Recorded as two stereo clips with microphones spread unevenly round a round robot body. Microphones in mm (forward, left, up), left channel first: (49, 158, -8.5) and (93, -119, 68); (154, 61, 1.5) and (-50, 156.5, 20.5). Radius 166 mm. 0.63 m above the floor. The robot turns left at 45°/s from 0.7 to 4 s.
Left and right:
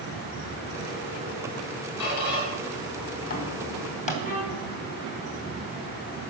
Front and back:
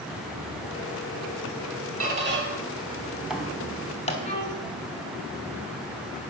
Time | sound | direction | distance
2.0 | a squeak | 125° left | 3 m
4.2 | a violin | 35° left | 4.5 m